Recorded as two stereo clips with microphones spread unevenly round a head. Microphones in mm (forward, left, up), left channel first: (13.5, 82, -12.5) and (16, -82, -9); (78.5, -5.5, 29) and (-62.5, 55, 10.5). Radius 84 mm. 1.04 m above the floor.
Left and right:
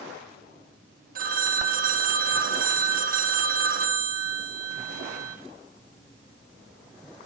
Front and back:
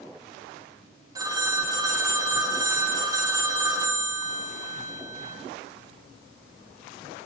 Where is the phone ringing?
135° right, 1.2 m.